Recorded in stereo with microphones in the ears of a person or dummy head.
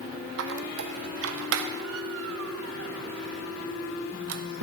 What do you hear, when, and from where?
0.4 s a squeak: 80° right, 1.0 m